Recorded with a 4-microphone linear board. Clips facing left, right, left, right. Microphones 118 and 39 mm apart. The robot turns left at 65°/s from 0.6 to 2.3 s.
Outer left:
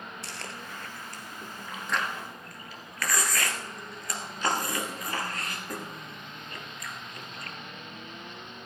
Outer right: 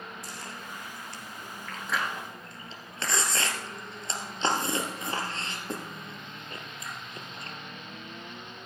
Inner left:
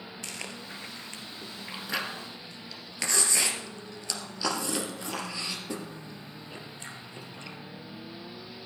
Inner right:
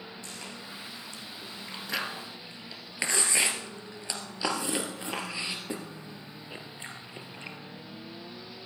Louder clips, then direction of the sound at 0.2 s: Even, inner left 2 dB; 80° left.